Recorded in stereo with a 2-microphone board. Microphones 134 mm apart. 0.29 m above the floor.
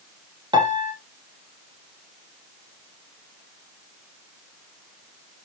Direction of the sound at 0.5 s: 35° right (ahead or behind).